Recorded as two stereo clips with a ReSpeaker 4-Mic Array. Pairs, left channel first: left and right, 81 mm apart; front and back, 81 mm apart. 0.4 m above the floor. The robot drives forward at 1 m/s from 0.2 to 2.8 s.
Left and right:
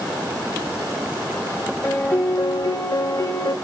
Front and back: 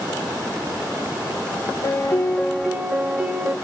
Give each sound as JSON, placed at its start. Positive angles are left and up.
{"t": 1.8, "sound": "a piano", "azimuth_deg": 30, "distance_m": 0.9}